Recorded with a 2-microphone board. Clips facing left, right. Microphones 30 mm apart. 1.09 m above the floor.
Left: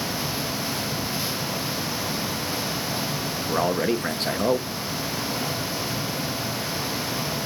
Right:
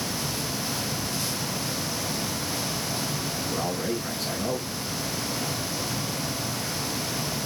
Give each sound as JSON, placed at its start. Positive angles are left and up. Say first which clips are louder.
{"t": 3.5, "sound": "a man speaking", "louder": "left 8 dB", "side_deg": 60, "distance_m": 0.9}